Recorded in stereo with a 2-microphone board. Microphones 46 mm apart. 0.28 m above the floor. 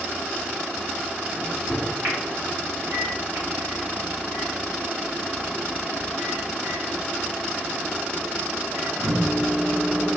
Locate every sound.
1.3 s a microwave: 50° right (ahead or behind), 1.9 m